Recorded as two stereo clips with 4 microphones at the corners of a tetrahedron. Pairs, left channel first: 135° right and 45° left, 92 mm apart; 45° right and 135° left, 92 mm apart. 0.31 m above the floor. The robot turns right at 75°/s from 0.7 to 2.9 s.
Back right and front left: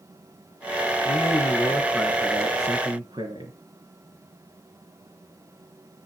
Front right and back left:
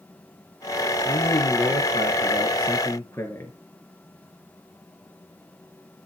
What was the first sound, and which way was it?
A man speaking, 125° right.